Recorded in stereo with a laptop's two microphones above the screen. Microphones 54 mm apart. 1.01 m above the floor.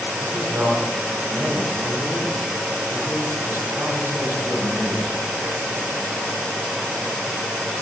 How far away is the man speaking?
About 6.5 m.